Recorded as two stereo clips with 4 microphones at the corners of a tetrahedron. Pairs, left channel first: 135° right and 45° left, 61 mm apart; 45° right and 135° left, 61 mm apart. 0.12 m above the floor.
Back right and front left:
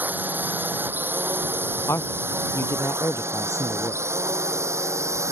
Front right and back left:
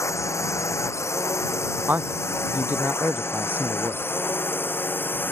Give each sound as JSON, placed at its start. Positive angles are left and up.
{"t": 0.0, "sound": "a drone", "azimuth_deg": -15}
{"t": 1.9, "sound": "a man speaking", "azimuth_deg": -170}